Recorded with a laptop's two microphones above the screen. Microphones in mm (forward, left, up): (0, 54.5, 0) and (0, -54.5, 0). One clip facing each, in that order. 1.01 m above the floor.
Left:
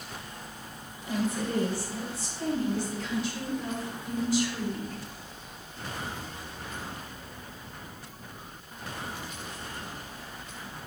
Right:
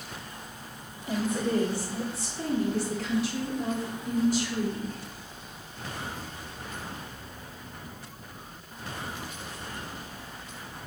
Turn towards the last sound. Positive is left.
turn(degrees=-35)  # may be behind; listen again after turning